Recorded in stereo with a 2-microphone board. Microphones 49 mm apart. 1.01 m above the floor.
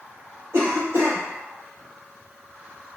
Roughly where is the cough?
Right.